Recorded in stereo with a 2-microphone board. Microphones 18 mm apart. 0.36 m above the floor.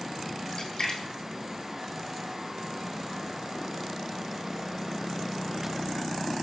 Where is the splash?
30° left (ahead or behind), 1.4 m.